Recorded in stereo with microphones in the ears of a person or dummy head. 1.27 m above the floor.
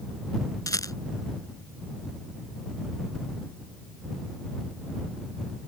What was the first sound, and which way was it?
A rattle, 15° left (ahead or behind).